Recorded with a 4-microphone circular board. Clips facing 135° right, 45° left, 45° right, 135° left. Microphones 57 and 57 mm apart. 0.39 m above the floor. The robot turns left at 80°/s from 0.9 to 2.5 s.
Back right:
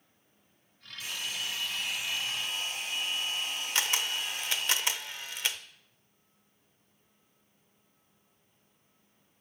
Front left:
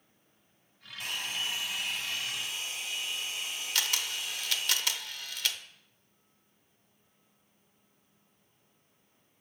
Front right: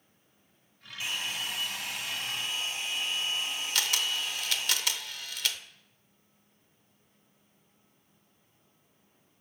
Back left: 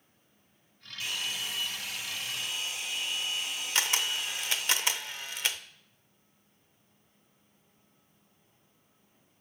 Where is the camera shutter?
Straight behind, 0.5 m.